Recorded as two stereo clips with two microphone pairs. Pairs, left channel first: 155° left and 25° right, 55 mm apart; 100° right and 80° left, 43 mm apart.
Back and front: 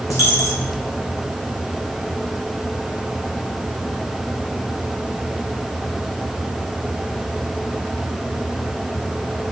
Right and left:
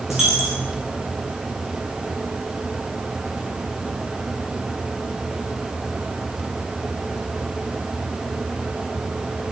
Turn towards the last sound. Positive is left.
turn(degrees=160)